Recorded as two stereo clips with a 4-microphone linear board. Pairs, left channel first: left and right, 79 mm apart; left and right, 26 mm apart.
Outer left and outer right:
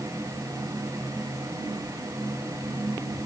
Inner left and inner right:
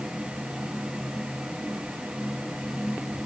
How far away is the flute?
No flute in this recording.